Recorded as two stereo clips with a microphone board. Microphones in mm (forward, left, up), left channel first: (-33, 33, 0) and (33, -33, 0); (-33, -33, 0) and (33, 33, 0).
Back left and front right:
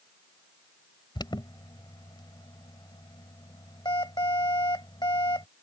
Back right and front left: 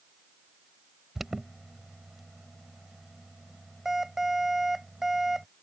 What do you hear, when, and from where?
1.1 s an alarm: 130° left